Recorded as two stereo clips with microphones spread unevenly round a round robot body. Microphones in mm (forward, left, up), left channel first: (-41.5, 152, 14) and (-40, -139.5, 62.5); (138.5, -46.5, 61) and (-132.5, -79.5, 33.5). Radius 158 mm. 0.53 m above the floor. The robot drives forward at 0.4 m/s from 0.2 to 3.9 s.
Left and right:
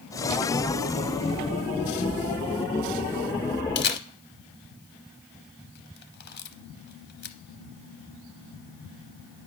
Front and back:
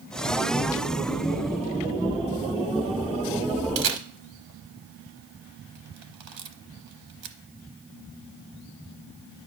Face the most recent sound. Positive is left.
turn(degrees=150)